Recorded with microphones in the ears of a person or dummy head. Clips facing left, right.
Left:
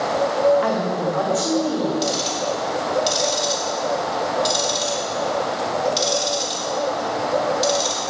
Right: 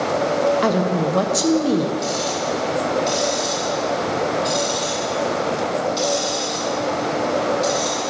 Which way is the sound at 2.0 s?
50° left (ahead or behind).